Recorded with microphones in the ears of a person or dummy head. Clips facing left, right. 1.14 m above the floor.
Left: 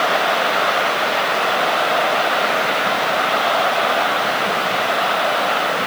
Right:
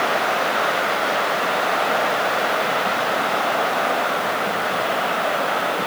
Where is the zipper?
No zipper in this recording.